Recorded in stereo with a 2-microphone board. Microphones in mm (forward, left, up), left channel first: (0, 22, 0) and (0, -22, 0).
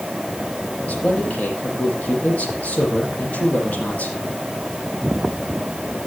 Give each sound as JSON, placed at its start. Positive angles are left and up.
{"t": 0.9, "sound": "a man speaking", "side_deg": 35, "distance_m": 8.5}